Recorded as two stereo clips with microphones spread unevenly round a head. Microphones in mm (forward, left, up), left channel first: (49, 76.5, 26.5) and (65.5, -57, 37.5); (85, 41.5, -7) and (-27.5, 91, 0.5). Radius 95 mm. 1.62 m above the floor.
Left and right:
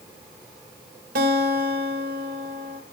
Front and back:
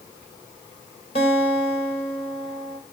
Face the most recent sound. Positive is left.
turn(degrees=-85)